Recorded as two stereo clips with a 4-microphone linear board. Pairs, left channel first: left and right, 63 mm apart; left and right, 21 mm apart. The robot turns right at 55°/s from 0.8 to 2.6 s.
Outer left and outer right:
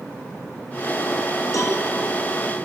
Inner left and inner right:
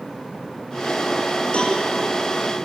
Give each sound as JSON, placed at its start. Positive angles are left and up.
{"t": 1.5, "sound": "a cowbell", "side_deg": 65, "distance_m": 3.0}